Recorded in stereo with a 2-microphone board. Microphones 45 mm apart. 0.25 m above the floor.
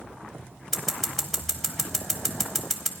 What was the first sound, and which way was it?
Scissors, 5° left (ahead or behind).